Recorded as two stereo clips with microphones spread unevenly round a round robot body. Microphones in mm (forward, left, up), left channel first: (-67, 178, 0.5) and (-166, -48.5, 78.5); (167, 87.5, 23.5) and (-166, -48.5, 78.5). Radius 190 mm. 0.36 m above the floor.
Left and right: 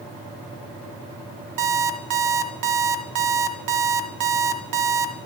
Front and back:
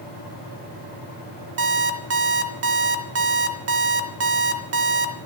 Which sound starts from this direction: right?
An alarm clock, at 1.6 s.